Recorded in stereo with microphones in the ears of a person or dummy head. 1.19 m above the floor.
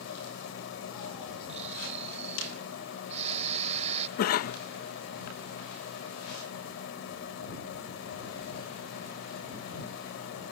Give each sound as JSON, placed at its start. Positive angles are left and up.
{"t": 0.0, "sound": "a machine running", "side_deg": 80}
{"t": 1.5, "sound": "snoring", "side_deg": -40}
{"t": 4.2, "sound": "a cough", "side_deg": 55}